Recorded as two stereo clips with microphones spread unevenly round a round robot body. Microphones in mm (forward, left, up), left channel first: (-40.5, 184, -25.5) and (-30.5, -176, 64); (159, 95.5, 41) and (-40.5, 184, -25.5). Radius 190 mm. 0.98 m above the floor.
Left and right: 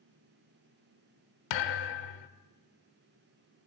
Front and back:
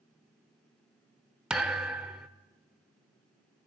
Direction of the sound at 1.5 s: 65° left.